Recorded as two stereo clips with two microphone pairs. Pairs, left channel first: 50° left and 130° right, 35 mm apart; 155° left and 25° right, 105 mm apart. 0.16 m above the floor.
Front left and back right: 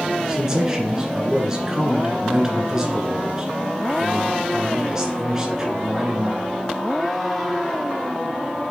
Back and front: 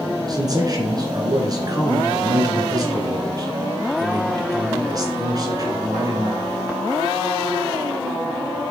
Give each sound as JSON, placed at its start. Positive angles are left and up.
{"t": 0.3, "sound": "a man speaking", "azimuth_deg": -65, "distance_m": 1.9}